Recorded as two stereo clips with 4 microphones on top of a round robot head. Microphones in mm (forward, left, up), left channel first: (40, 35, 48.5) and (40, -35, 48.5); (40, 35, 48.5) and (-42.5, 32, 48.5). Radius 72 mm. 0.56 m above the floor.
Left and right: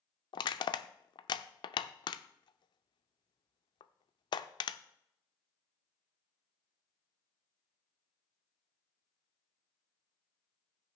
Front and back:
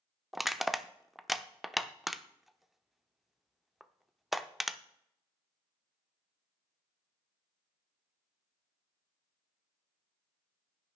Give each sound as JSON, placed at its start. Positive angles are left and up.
{"t": 0.3, "sound": "crushing", "azimuth_deg": 95, "distance_m": 0.6}